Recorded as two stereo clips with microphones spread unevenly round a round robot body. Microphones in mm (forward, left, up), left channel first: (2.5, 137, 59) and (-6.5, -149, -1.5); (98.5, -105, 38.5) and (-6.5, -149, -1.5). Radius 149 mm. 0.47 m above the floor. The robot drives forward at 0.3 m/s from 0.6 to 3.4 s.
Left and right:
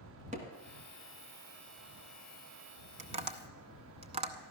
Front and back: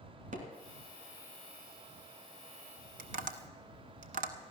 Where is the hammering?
160° right, 1.7 m.